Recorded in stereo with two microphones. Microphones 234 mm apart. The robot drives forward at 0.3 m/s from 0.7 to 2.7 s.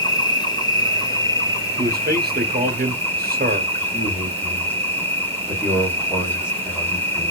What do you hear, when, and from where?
0.0 s an insect: 15° left (ahead or behind), 0.8 m; by 7.3 s 10° left (ahead or behind), 1.3 m
1.8 s a man speaking: 40° right (ahead or behind), 0.7 m
3.9 s a man speaking: 10° right (ahead or behind), 1.3 m